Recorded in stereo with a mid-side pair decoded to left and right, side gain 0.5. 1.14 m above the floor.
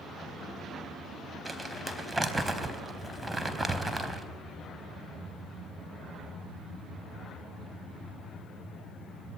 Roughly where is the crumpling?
Ahead.